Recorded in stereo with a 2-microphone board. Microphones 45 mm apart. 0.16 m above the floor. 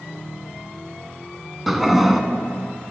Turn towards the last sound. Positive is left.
turn(degrees=-5)  # may be behind; listen again after turning